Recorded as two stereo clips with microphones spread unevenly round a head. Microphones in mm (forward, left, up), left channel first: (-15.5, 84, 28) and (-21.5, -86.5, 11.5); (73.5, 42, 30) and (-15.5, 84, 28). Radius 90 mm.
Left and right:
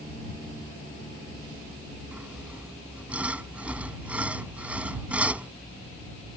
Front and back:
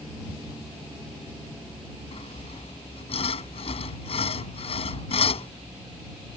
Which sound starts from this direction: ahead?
Sawing, at 2.1 s.